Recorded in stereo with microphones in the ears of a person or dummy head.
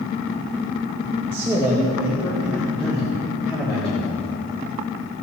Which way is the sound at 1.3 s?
15° right (ahead or behind).